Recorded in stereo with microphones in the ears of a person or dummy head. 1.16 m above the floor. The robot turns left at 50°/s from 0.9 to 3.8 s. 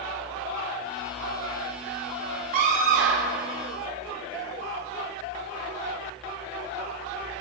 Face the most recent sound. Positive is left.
turn(degrees=-115)